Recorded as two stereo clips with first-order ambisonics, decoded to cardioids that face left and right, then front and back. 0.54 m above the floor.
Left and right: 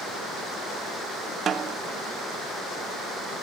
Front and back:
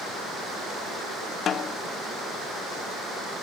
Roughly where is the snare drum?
Ahead right.